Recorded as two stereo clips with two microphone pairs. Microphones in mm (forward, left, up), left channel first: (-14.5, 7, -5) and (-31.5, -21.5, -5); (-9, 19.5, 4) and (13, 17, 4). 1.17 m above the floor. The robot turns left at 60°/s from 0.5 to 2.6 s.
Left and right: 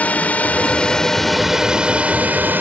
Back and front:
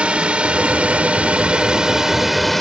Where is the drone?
20° left; by 2.6 s 100° right.